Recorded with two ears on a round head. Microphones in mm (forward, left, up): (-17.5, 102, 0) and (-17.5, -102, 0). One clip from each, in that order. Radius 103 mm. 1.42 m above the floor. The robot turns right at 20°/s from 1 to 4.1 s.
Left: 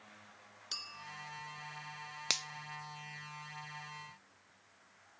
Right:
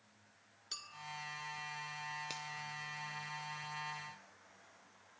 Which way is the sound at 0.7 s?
15° left (ahead or behind).